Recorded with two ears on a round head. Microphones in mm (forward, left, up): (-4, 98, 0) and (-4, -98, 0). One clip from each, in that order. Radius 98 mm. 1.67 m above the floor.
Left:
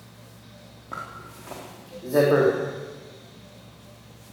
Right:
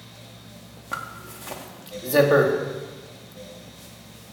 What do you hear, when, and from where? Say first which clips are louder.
0.9 s a zipper: right 3 dB; 75° right (ahead or behind), 4 m